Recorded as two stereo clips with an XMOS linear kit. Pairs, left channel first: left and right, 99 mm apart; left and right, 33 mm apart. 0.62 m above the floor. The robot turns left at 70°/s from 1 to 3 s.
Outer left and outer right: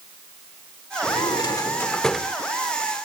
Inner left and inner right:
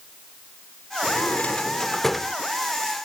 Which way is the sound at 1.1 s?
75° left.